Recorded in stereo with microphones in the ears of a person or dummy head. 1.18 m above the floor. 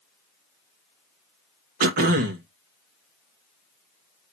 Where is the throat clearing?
50° right (ahead or behind), 0.7 m.